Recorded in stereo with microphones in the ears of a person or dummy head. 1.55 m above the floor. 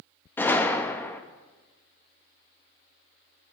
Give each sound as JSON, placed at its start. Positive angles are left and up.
{"t": 0.4, "sound": "a gunshot", "side_deg": 5, "distance_m": 0.6}